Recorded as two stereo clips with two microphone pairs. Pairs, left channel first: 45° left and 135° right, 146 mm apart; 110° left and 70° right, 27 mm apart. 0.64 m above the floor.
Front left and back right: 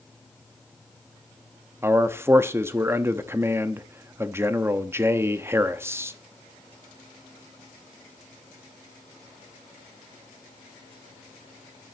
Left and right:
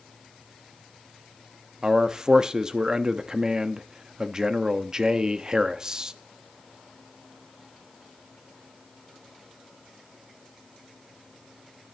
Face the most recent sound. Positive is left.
turn(degrees=-80)